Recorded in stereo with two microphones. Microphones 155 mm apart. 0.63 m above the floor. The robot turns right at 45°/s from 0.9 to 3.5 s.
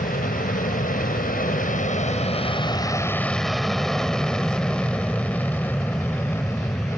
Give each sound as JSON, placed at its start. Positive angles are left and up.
{"t": 0.0, "sound": "an aircraft", "side_deg": 65}